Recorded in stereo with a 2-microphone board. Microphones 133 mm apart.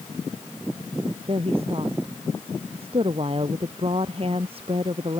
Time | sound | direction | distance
1.3 | a woman speaking | 45° right (ahead or behind) | ?